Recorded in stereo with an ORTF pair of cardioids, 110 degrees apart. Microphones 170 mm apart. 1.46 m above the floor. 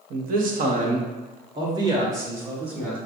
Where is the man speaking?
65° right, 1.2 m; by 3.0 s 5° right, 2 m.